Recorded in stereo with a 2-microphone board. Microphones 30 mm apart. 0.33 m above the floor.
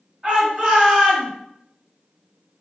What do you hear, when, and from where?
0.2 s a shout: 25° right (ahead or behind), 1.5 m; by 1.3 s centre (ahead or behind), 1.1 m